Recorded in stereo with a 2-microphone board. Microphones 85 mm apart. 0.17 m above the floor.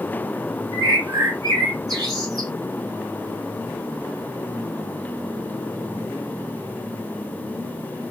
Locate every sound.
0.7 s a bird: 50° right (ahead or behind), 1.8 m